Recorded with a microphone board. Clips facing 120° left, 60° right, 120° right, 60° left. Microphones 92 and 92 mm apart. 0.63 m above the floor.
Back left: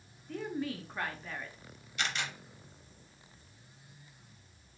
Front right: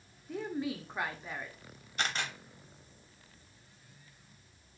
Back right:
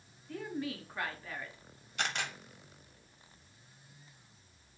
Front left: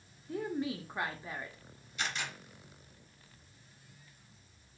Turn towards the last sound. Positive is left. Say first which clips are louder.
# front right 1 dB, back right 2 dB
turn(degrees=-105)